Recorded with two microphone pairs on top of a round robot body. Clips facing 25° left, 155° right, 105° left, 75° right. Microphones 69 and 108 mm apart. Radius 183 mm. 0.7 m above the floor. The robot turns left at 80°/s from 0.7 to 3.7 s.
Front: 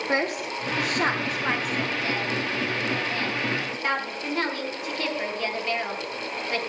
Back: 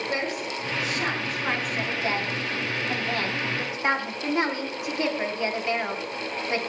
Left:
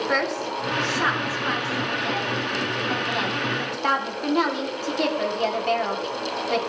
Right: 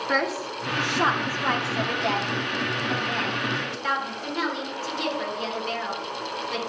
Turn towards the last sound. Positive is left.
turn(degrees=135)